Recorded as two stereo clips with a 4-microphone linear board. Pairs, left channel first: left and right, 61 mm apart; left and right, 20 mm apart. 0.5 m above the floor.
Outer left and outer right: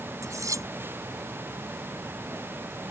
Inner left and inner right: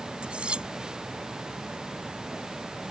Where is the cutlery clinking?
70° right (ahead or behind).